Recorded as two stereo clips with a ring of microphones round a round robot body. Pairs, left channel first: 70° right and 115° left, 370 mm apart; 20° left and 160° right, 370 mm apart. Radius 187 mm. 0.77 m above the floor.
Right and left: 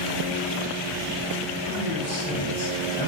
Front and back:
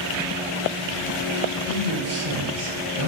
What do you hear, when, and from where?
1.6 s a man speaking: 85° right, 2 m